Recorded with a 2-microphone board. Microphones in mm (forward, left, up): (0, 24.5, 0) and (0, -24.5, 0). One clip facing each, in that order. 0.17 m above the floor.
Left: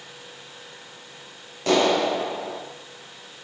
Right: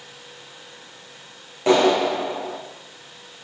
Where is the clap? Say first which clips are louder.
Right 3 dB; 20° right (ahead or behind), 9 m.